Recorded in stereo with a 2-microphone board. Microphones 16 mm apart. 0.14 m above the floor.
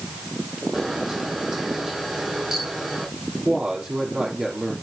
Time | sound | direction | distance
0.7 | a camera shutter | 40° right (ahead or behind) | 6 m
3.5 | a woman speaking | 50° right (ahead or behind) | 4 m